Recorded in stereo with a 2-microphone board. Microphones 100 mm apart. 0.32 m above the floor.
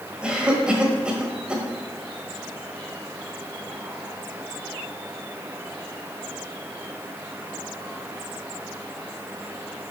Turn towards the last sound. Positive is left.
turn(degrees=-10)  # may be behind; listen again after turning